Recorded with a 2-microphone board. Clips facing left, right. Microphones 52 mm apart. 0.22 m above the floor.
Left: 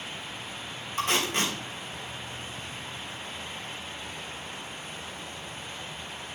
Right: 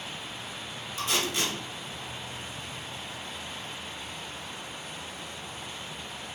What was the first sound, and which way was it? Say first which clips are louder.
Tape being pulled: left 3 dB; 45° left (ahead or behind).